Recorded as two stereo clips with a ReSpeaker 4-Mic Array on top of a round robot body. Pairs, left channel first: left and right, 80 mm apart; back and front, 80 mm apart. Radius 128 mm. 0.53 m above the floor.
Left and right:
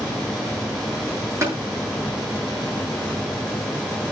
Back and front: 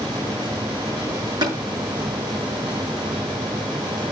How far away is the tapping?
About 7.5 m.